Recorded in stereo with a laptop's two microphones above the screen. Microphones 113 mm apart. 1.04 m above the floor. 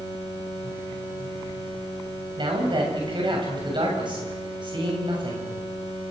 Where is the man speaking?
45° right (ahead or behind), 7 m.